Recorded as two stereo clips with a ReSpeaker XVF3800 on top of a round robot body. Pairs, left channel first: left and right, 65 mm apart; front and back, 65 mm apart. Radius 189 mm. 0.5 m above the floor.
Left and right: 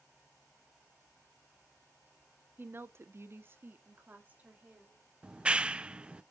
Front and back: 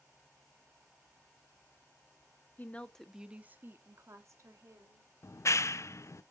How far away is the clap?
About 0.6 m.